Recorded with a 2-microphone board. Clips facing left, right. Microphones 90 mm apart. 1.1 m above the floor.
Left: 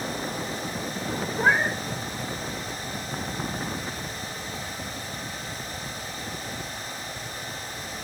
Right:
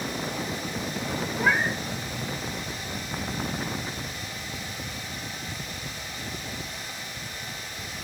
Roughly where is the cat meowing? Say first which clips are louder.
Left 2 dB; left.